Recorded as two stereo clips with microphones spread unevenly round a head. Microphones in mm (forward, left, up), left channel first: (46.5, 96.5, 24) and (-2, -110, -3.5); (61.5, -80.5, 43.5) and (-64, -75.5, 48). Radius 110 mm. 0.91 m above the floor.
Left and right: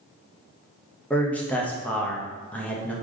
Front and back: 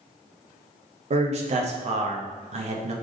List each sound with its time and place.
1.1 s a man speaking: 165° left, 0.7 m